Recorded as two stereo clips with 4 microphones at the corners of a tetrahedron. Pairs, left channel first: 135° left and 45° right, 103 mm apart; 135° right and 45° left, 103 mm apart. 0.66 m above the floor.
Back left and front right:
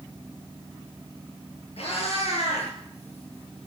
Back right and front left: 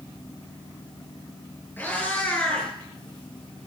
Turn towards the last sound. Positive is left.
turn(degrees=145)